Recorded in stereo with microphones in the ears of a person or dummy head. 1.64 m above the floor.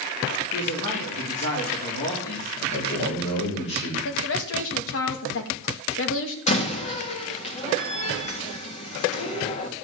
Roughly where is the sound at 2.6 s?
Left.